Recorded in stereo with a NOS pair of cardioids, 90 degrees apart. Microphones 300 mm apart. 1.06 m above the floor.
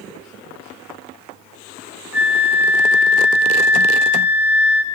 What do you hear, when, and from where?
2.1 s a flute: 5° right, 1.9 m